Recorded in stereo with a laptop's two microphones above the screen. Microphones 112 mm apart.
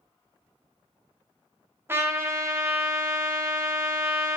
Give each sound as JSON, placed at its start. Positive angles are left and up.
{"t": 1.9, "sound": "a trumpet", "side_deg": -20, "distance_m": 0.7}